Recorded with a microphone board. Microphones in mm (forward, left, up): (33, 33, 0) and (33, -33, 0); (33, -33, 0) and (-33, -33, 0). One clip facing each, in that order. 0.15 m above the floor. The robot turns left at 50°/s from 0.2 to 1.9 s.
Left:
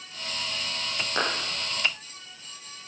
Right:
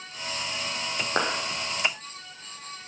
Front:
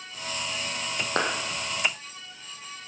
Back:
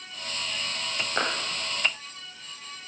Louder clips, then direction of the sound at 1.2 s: Right 1 dB, front 1 dB; 35° right.